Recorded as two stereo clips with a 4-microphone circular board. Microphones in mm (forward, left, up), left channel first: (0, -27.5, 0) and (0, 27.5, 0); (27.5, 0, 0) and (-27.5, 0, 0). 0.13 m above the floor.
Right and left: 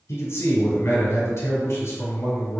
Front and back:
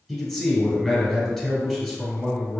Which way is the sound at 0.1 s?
85° right.